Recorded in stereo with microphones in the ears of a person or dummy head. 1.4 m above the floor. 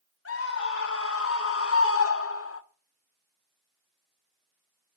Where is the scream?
80° left, 4 m.